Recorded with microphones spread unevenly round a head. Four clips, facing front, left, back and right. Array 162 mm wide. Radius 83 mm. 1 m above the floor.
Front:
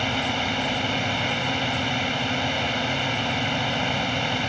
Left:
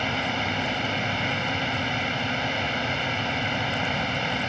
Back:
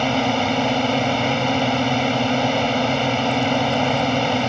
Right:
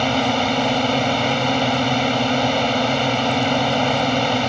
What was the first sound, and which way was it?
A drone, 130° right.